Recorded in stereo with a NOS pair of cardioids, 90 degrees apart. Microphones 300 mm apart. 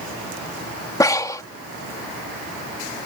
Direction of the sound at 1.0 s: 10° left.